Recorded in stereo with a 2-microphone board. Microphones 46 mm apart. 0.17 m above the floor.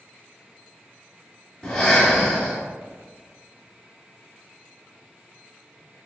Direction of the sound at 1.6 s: 15° left (ahead or behind).